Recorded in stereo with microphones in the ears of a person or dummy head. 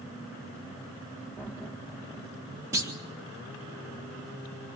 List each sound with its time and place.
1.4 s laughter: 5° left (ahead or behind), 3.5 m; by 2.6 s 15° left (ahead or behind), 4 m
2.7 s a clunk: 10° right (ahead or behind), 1.7 m